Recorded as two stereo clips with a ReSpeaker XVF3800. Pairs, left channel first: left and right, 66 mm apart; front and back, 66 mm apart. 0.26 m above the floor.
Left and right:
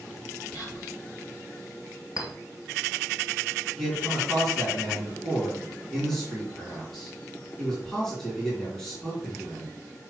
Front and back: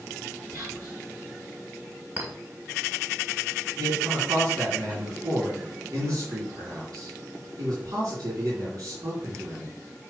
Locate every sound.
0.5 s whispering: 135° left, 3.5 m
2.2 s a clink: 110° left, 1.8 m
3.8 s a man speaking: 170° left, 3 m